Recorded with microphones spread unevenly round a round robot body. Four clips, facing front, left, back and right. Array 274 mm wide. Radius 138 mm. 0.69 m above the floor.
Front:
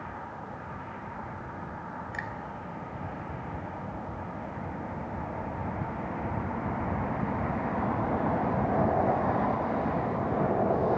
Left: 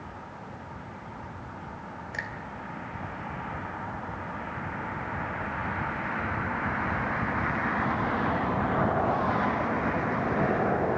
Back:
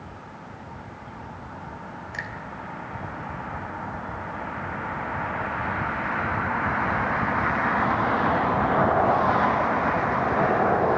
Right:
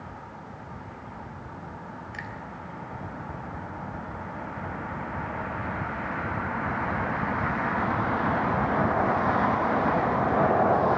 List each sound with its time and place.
2.1 s a finger snap: 100° left, 3 m